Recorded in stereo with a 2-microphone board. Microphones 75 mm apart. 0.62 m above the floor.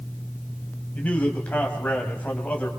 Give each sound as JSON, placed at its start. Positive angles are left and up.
{"t": 0.9, "sound": "a man speaking", "side_deg": 20, "distance_m": 4.0}